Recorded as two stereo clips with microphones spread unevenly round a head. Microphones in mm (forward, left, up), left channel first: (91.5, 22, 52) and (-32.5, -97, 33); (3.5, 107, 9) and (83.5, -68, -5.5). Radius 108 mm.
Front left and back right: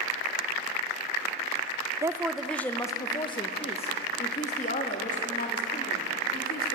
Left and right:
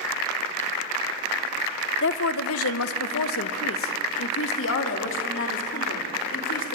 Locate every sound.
2.0 s a woman speaking: 155° left, 0.9 m; by 6.8 s 90° left, 4 m